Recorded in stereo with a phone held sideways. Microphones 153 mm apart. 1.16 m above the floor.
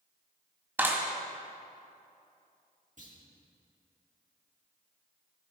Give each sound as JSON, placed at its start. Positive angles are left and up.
{"t": 0.8, "sound": "a clap", "side_deg": -10, "distance_m": 1.7}
{"t": 3.0, "sound": "a clunk", "side_deg": -55, "distance_m": 1.9}